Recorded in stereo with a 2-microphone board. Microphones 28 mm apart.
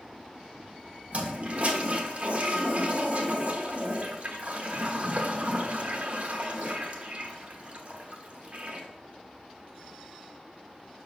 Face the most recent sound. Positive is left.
turn(degrees=-45)  # may be behind; listen again after turning